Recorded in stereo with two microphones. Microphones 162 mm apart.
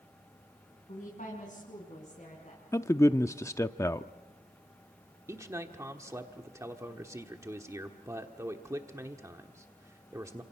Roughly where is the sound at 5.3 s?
Centre.